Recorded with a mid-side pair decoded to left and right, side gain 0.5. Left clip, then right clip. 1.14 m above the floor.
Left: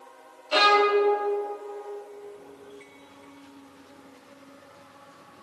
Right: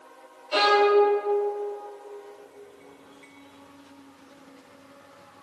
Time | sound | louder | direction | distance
0.5 | a violin | even | 40° left | 1.1 m